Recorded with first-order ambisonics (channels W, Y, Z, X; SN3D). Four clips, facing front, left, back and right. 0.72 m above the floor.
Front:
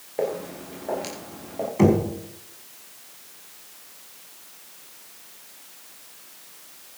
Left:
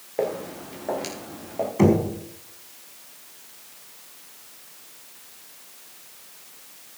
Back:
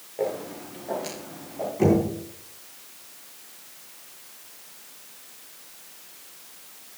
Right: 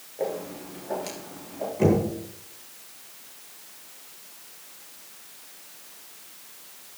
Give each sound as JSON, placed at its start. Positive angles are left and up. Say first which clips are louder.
{"t": 0.2, "sound": "footsteps", "louder": "left 3 dB, front 1 dB", "azimuth_deg": 60, "distance_m": 5.5}
{"t": 1.8, "sound": "knocking", "louder": "left 3 dB, front 2 dB", "azimuth_deg": 50, "distance_m": 4.5}